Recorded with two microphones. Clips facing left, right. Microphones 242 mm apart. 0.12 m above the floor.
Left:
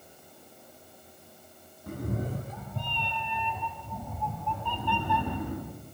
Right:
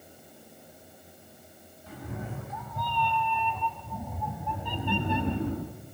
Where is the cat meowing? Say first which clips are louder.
Left 6 dB; 50° left (ahead or behind), 3.5 m; by 5.7 s 30° right (ahead or behind), 4.5 m.